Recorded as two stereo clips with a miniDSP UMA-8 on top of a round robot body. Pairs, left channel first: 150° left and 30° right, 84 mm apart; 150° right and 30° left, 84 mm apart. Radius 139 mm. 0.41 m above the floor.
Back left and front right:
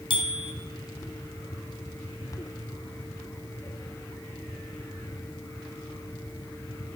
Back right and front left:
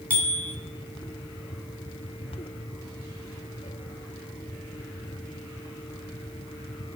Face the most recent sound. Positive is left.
turn(degrees=135)